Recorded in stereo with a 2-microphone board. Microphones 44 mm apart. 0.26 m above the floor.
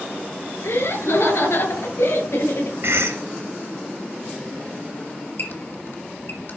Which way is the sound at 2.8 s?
70° right (ahead or behind).